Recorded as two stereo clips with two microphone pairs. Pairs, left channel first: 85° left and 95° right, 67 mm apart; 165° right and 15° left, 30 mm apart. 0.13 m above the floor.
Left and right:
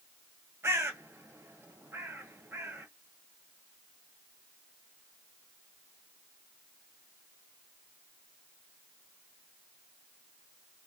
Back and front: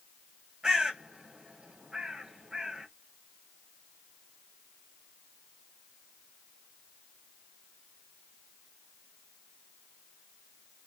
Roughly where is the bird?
Ahead right.